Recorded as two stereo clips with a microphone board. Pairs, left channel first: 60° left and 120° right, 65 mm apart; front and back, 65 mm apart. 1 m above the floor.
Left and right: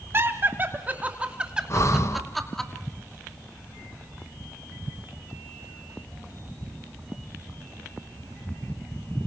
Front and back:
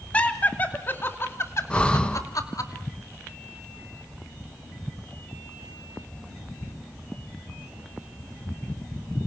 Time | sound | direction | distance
0.1 | laughter | 70° right | 3 m
1.7 | breathing | 70° left | 1.2 m